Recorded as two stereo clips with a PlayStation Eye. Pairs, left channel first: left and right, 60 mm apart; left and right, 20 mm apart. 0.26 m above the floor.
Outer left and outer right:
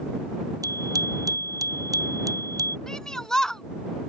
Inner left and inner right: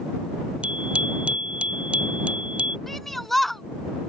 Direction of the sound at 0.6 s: 75° right (ahead or behind).